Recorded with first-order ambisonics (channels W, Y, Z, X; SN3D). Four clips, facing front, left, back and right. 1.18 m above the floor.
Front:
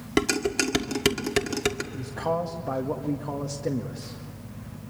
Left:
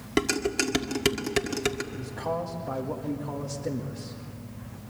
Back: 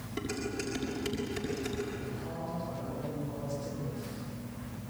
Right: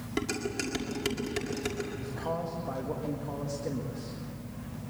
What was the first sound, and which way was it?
Dishes clattering, 30° left.